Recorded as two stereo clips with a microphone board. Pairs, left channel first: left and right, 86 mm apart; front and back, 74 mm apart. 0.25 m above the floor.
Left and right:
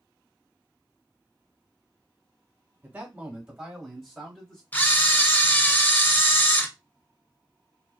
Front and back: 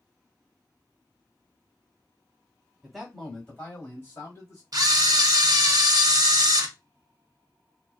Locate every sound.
2.8 s a man speaking: 100° right, 1.2 m; by 4.6 s 10° left, 1.5 m
4.7 s a camera shutter: 155° left, 0.6 m